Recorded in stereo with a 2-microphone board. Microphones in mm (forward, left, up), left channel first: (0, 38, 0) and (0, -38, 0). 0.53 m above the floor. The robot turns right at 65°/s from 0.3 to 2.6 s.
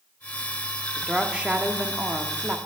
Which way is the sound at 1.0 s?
5° right (ahead or behind).